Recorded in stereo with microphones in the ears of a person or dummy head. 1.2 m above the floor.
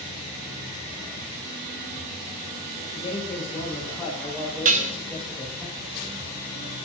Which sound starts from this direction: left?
A man speaking, at 2.8 s.